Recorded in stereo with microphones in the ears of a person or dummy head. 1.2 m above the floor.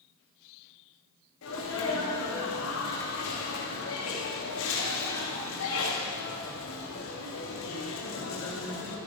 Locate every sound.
1.4 s a sneeze: 75° left (ahead or behind), 3 m